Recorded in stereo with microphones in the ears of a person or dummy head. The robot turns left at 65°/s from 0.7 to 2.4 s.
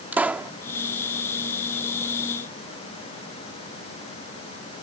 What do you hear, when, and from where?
0.1 s a pop: 5° right (ahead or behind)